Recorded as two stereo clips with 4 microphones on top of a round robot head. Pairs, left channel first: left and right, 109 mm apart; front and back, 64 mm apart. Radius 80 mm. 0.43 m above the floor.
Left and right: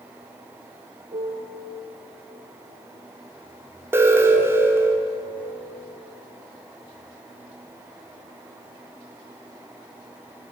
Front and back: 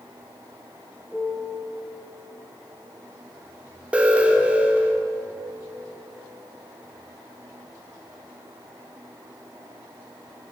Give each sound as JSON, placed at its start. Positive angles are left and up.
{"t": 1.1, "sound": "a piano", "azimuth_deg": -100, "distance_m": 1.5}
{"t": 3.9, "sound": "an alarm", "azimuth_deg": -130, "distance_m": 1.4}